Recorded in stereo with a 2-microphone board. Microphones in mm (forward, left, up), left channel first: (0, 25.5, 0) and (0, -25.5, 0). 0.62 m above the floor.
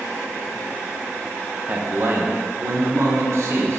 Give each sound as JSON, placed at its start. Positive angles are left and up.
{"t": 1.7, "sound": "a man speaking", "side_deg": -35, "distance_m": 0.7}